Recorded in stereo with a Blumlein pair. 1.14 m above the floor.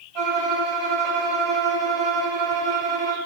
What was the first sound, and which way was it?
A violin, 40° right.